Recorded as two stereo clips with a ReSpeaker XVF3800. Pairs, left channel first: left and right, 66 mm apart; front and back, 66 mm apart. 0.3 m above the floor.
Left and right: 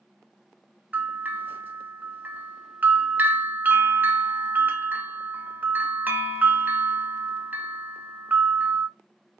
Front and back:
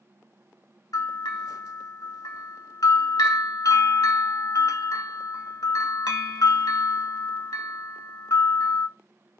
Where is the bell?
25° right, 0.6 m.